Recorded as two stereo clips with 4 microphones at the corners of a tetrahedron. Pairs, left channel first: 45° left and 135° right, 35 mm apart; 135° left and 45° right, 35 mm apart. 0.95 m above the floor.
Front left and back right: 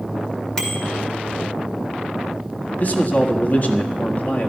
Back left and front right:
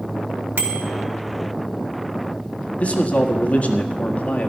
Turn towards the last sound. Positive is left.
turn(degrees=90)